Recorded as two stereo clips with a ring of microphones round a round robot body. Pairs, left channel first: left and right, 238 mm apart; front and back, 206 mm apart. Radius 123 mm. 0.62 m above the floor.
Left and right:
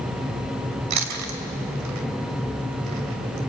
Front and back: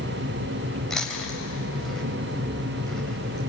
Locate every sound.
0.9 s chewing: 90° right, 2.5 m